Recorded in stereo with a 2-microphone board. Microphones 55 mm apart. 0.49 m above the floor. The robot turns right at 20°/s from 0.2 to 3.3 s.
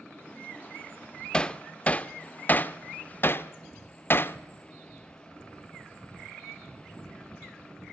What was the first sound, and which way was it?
Hammering, 15° left (ahead or behind).